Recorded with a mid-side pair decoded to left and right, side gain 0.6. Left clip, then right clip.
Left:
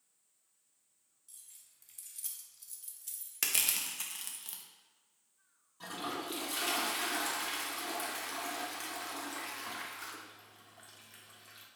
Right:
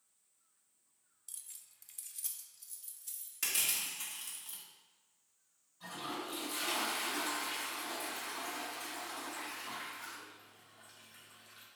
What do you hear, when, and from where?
1.3 s keys jangling: 55° right, 0.6 m; by 4.4 s 35° left, 1.5 m
3.4 s crushing: 45° left, 1.0 m
5.8 s a toilet flushing: 70° left, 1.2 m